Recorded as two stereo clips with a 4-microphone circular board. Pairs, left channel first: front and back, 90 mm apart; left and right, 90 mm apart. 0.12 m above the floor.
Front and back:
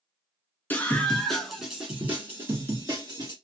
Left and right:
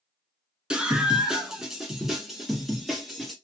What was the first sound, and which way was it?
A scream, 30° right.